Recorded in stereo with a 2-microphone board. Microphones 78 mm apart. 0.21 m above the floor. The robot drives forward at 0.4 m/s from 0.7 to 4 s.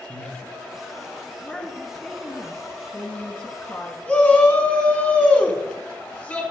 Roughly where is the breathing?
Right.